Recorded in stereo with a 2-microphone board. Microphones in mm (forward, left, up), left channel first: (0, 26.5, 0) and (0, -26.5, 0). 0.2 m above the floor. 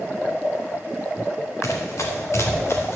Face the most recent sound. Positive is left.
turn(degrees=50)  # may be behind; listen again after turning